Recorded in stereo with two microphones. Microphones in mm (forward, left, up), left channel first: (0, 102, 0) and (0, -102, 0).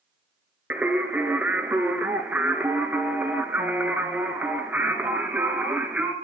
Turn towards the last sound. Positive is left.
turn(degrees=-10)  # may be behind; listen again after turning